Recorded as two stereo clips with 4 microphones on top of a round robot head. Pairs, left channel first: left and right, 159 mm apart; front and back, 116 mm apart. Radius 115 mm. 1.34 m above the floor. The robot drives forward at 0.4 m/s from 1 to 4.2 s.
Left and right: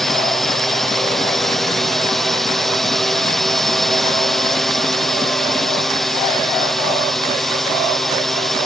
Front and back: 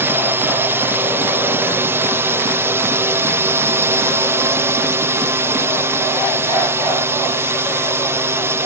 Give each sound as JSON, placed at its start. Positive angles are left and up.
{"t": 0.0, "sound": "a drone", "azimuth_deg": 175}